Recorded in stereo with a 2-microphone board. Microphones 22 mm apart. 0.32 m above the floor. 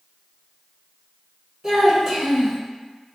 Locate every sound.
1.6 s a child speaking: 30° right (ahead or behind), 1.1 m